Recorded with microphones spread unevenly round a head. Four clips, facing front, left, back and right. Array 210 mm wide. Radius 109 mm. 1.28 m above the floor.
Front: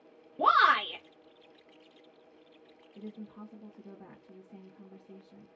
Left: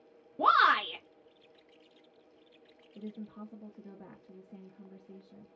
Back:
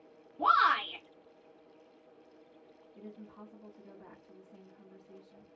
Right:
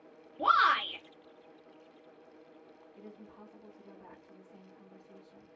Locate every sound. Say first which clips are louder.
0.4 s a shout: left 2 dB, front 3 dB; 45° left, 0.8 m
3.0 s a woman speaking: left 8 dB, front 4 dB; 70° left, 0.8 m